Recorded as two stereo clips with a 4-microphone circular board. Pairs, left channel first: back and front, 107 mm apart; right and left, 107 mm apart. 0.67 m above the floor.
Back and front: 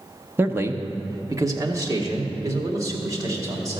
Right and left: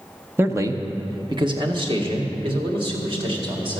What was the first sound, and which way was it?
A man speaking, 50° left.